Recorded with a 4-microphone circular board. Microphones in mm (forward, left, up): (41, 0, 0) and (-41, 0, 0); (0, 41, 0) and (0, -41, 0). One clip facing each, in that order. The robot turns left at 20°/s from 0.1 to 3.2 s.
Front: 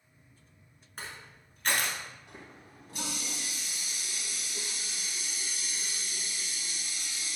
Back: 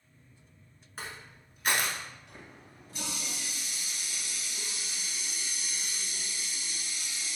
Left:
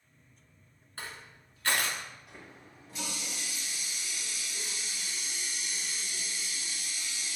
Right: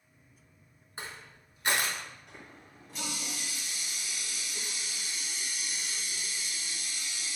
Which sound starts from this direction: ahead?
A running tap, at 2.3 s.